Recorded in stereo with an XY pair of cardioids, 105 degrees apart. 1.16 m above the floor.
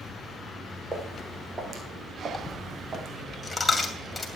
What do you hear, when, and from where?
0.9 s footsteps: 20° right, 4.5 m; by 3.2 s 45° right, 4.5 m
2.3 s a dropped coin: 20° left, 2.5 m